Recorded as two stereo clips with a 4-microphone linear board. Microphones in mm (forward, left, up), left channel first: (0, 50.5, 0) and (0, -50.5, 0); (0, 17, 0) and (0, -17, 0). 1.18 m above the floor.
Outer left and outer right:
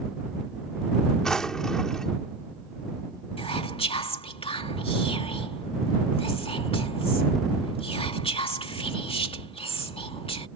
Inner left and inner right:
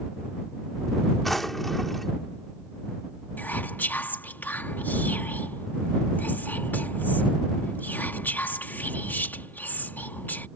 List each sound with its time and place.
1.2 s a drawer: 5° left (ahead or behind)
3.4 s whispering: 65° left (ahead or behind)